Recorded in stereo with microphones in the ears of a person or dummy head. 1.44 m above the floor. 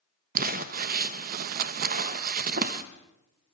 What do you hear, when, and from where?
0.3 s crumpling: 45° right (ahead or behind), 1.0 m